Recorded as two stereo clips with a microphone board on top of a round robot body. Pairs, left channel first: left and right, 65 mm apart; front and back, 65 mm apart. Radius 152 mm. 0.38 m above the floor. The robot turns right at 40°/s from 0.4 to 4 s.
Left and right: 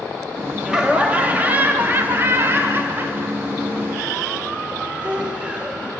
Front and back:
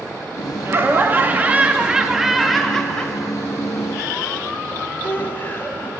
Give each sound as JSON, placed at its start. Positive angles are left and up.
{"t": 0.7, "sound": "laughter", "azimuth_deg": -165, "distance_m": 0.9}